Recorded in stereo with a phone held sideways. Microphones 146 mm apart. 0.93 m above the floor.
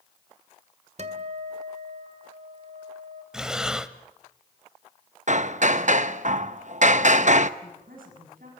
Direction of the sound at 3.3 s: 5° right (ahead or behind).